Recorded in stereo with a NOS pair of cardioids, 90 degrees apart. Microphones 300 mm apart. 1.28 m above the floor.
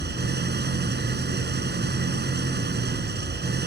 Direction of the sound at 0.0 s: 35° right.